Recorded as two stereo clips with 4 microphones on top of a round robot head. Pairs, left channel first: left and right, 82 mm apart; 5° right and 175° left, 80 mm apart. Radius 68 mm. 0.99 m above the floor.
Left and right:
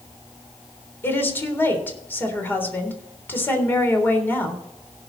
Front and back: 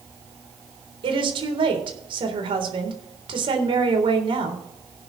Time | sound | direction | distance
1.0 | a woman speaking | 155° left | 3.5 m